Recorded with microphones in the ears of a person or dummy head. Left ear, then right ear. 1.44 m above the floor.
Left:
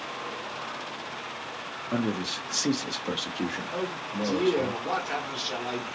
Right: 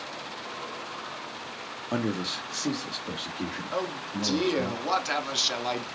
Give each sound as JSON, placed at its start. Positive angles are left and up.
{"t": 1.9, "sound": "a man speaking", "side_deg": -40, "distance_m": 0.5}
{"t": 3.7, "sound": "a man speaking", "side_deg": -35, "distance_m": 1.3}